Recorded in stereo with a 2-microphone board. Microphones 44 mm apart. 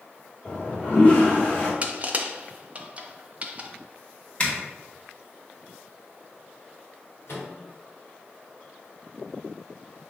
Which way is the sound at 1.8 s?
30° right (ahead or behind).